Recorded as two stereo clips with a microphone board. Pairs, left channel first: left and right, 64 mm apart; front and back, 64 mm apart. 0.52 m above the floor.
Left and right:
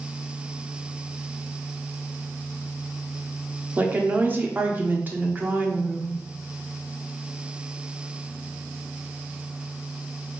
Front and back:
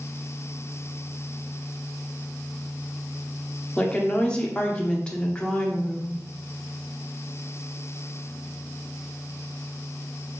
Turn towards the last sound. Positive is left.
turn(degrees=-65)